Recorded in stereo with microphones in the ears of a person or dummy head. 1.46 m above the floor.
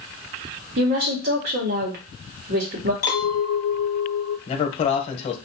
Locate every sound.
0.8 s a woman speaking: 50° right (ahead or behind), 1.1 m
3.0 s a clink: 50° left (ahead or behind), 0.9 m
4.5 s a man speaking: 40° left (ahead or behind), 0.8 m